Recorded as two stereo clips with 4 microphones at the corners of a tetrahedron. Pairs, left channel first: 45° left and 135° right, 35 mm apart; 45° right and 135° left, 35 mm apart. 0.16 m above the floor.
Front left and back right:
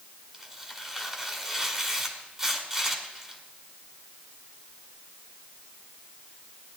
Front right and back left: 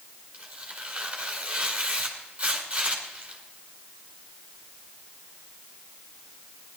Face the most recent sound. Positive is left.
turn(degrees=160)